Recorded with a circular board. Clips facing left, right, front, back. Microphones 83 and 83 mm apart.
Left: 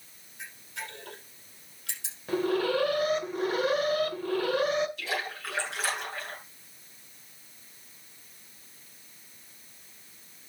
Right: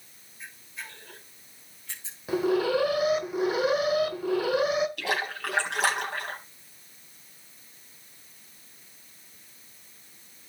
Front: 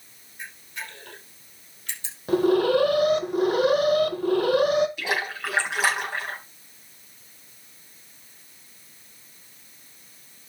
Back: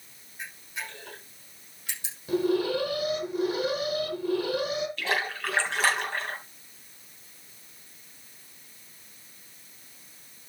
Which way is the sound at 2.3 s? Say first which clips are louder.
Right 2 dB, front 6 dB; 10° right.